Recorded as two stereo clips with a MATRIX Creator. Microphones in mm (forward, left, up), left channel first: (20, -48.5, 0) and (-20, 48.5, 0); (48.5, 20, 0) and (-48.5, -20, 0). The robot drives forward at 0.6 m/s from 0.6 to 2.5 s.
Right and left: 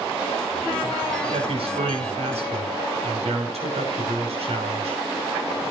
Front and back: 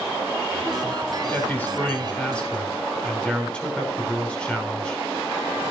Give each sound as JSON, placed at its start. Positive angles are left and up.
{"t": 1.3, "sound": "a man speaking", "azimuth_deg": 95, "distance_m": 5.5}